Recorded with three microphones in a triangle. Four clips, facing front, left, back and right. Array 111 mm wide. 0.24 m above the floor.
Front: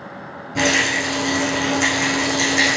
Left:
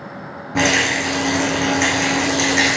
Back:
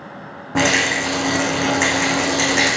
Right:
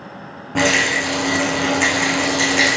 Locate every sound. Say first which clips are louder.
0.6 s a rattle: even, back 2 dB; 175° right, 3 m